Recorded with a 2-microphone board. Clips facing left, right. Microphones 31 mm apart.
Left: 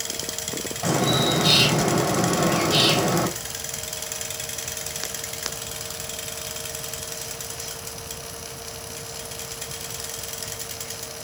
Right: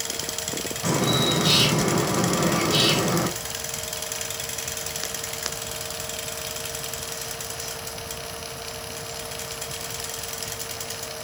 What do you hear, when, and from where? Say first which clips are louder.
0.8 s a bird: left 1 dB; 40° left (ahead or behind), 3.5 m